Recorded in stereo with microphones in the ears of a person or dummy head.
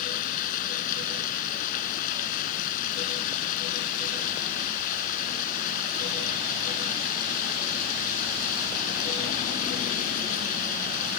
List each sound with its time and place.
0.0 s running water: 50° left (ahead or behind)